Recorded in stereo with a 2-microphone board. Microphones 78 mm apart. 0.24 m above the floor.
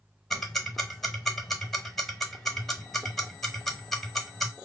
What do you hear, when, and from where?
0.3 s ticking: 5° left (ahead or behind), 1.0 m